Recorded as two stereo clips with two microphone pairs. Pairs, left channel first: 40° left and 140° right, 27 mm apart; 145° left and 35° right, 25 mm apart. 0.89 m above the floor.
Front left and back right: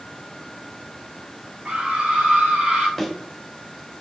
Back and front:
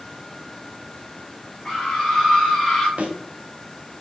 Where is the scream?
150° right, 2.5 m; by 2.9 s 130° right, 1.9 m.